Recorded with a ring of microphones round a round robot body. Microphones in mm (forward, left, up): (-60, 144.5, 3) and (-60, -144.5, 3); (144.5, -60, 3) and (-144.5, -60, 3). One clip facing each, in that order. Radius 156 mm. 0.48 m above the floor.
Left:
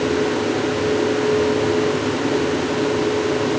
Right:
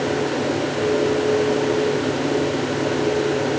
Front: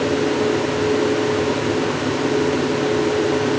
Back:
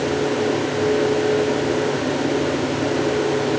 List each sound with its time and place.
Only background noise.